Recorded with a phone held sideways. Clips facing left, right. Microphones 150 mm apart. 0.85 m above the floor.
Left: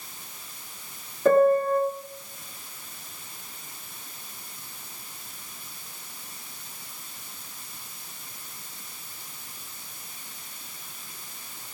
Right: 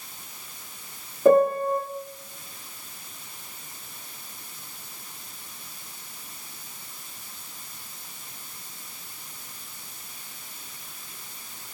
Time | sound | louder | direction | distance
1.2 | a piano | right 1 dB | 15° right (ahead or behind) | 2.0 m